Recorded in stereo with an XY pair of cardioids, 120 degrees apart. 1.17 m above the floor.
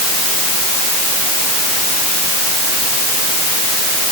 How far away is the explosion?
I don't hear an explosion.